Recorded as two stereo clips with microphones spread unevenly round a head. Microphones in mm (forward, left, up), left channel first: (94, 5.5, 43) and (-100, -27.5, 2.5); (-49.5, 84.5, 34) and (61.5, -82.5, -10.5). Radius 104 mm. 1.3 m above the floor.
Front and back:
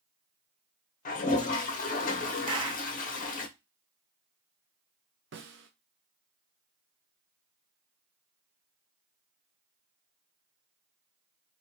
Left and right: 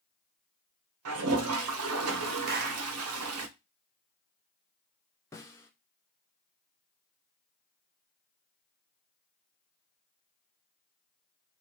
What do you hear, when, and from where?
1.1 s a toilet flushing: 40° right, 0.7 m
2.5 s a clap: 100° right, 0.7 m
5.3 s a snare drum: 175° left, 0.7 m